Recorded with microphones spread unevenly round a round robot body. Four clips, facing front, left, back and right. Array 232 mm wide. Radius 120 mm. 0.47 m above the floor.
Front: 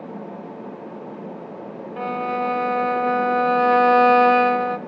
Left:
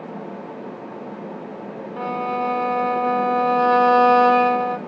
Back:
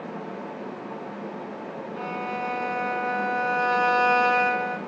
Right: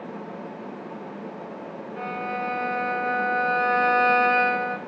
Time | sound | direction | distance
2.0 | a violin | 55° left | 0.8 m